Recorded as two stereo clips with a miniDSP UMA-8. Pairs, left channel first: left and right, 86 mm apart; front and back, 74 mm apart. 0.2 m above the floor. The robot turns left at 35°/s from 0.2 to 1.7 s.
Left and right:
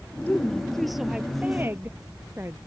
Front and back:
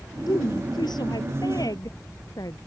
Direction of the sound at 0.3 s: 20° left.